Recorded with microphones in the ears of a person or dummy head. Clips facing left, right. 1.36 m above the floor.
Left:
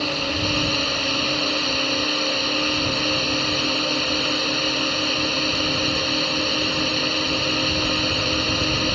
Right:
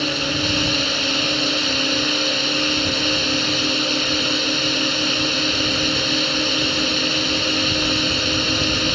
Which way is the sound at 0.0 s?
15° right (ahead or behind).